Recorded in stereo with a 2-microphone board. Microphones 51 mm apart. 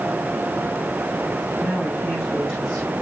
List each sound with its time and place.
1.6 s a woman speaking: 10° right (ahead or behind), 8 m